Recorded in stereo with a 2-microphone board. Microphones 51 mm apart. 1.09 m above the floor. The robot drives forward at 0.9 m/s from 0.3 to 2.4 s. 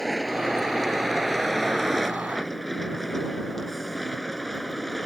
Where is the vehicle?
5° left (ahead or behind).